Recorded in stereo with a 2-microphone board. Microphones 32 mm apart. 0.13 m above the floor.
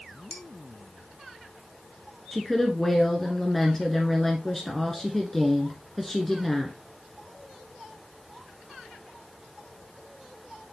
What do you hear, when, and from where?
0.3 s dishes clattering: 40° left (ahead or behind), 2.5 m
2.3 s a woman speaking: 10° left (ahead or behind), 1.3 m